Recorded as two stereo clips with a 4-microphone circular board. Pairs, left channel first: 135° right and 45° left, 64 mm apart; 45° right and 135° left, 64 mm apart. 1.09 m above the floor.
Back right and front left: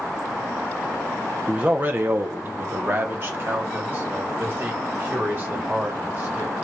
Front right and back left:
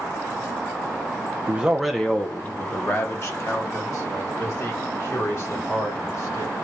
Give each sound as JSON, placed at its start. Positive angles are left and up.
{"t": 1.5, "sound": "a man speaking", "azimuth_deg": 95, "distance_m": 0.5}